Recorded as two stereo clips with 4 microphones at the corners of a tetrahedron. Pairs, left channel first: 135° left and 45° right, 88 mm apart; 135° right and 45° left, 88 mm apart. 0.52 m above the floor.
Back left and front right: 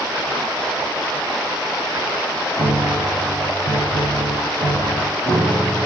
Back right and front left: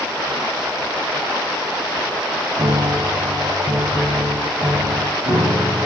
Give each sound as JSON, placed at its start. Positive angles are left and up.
{"t": 2.6, "sound": "a piano", "azimuth_deg": 45, "distance_m": 1.4}